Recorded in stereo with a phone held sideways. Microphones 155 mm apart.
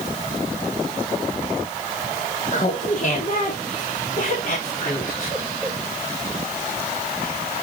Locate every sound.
2.5 s laughter: 50° left (ahead or behind), 1.5 m; by 5.8 s 55° left (ahead or behind), 3 m